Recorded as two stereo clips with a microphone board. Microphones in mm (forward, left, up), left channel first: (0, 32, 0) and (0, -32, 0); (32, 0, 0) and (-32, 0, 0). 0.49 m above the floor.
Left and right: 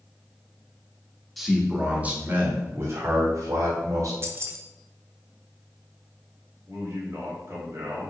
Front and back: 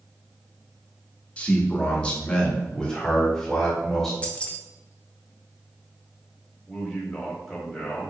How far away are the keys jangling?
About 0.6 m.